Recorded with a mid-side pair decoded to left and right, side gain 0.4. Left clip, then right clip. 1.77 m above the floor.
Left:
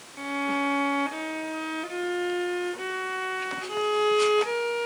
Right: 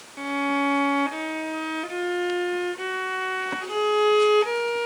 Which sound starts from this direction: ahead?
A violin, at 0.2 s.